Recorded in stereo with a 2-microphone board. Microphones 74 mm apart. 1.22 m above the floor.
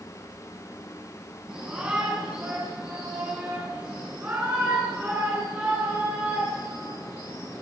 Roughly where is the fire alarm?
No fire alarm in this recording.